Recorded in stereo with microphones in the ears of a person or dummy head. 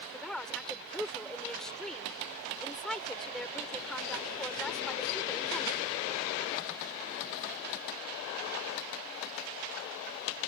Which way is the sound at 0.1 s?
Centre (ahead or behind).